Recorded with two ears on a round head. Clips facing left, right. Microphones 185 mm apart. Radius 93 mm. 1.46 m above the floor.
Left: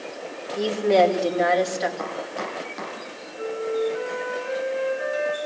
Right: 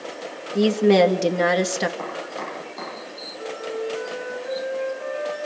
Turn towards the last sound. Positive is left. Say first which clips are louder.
# left 4 dB
turn(degrees=30)  # may be behind; listen again after turning